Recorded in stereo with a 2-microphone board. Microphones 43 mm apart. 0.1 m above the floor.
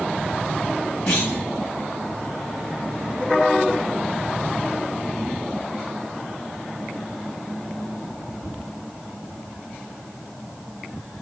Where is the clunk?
25° left (ahead or behind), 9.5 m.